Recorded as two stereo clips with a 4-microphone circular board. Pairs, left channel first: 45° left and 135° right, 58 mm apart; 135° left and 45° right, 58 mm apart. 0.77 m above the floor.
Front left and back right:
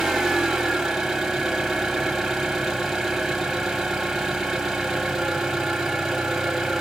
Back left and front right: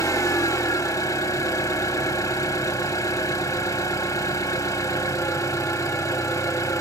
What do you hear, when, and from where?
0.0 s an engine running: 135° left, 1.2 m